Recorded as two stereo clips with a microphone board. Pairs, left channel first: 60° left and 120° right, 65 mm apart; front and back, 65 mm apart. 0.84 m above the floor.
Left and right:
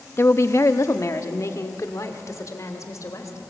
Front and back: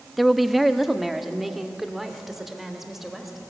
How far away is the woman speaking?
About 0.8 m.